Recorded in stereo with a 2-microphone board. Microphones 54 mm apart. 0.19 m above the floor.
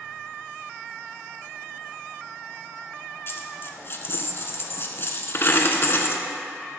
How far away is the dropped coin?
About 0.9 m.